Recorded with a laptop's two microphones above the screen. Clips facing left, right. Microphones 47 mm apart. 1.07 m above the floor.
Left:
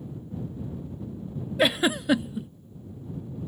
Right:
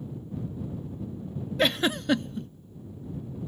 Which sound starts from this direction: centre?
A giggle, at 1.6 s.